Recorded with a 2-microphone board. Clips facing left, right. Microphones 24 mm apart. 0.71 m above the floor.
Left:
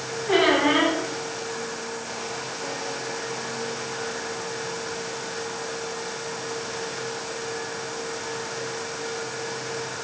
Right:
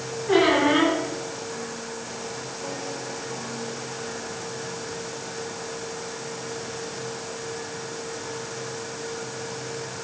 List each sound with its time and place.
0.3 s a squeak: centre (ahead or behind), 3.5 m